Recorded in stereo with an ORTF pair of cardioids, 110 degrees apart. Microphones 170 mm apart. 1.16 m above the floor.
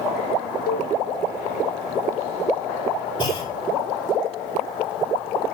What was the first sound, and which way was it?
A cowbell, 65° left.